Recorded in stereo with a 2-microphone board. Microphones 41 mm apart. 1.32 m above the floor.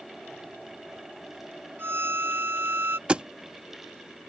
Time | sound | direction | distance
1.8 | a violin | 60° right (ahead or behind) | ?
3.1 | a thud | 25° right (ahead or behind) | ?